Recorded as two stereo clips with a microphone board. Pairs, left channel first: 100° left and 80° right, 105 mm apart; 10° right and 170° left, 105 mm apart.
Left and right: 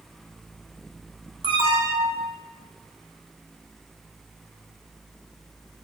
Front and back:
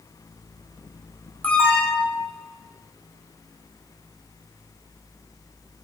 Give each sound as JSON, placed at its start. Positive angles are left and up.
{"t": 1.4, "sound": "an alarm", "azimuth_deg": -85, "distance_m": 2.0}